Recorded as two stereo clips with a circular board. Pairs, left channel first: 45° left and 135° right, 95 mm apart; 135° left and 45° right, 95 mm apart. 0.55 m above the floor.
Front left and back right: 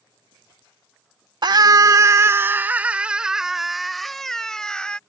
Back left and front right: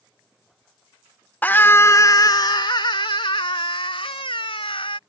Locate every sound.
1.4 s a scream: 155° right; by 5.0 s 125° left